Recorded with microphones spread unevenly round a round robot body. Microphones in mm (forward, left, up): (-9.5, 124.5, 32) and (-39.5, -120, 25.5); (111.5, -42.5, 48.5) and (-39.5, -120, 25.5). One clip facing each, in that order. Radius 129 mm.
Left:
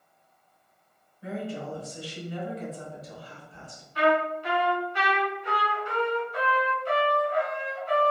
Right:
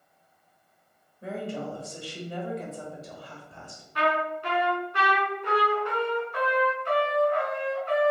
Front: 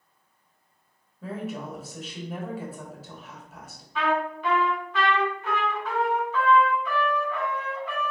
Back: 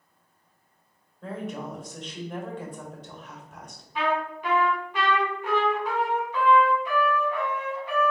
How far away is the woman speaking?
About 1.5 m.